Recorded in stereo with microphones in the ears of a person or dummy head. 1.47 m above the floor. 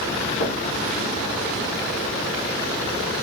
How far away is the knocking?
About 1.2 m.